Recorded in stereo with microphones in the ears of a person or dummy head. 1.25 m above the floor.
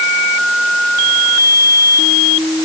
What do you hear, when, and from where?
Only background noise.